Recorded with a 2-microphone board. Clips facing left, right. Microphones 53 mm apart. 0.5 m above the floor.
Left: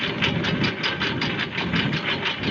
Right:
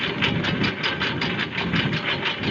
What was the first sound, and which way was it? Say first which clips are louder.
A lawn mower: even; 5° right (ahead or behind).